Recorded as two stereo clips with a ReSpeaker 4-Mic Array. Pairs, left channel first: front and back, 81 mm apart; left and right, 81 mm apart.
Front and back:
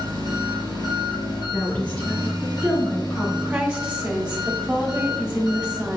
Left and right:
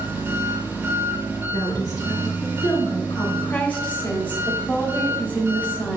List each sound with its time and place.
0.0 s an engine running: 25° right, 3 m
1.5 s a woman speaking: 65° left, 2.5 m
3.4 s a woman speaking: 125° left, 1.5 m